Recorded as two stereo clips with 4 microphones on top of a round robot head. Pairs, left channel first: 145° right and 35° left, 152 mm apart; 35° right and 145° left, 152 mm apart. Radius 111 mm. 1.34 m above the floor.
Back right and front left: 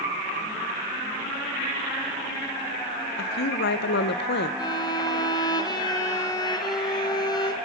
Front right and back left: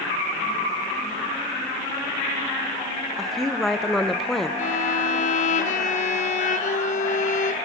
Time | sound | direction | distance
3.2 | a woman speaking | 125° right | 0.7 m
4.6 | a violin | 80° right | 1.0 m